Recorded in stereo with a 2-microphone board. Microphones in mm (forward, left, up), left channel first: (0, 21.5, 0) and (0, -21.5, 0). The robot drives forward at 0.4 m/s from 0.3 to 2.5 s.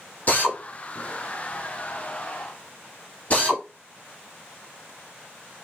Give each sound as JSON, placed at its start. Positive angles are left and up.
{"t": 0.3, "sound": "a drill", "side_deg": 40, "distance_m": 1.2}